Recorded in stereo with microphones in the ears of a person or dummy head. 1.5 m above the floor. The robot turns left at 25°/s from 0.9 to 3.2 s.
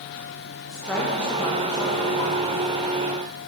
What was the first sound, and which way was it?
A woman speaking, straight behind.